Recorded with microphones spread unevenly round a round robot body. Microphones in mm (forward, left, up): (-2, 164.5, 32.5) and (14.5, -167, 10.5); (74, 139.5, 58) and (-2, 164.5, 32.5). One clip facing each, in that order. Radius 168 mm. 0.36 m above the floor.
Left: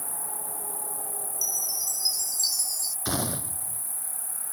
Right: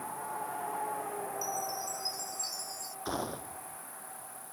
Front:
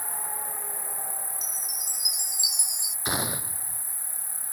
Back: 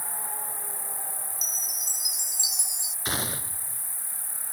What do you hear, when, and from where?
0.0 s an insect: 65° left
1.3 s a chime: 50° left
3.0 s a gunshot: 50° left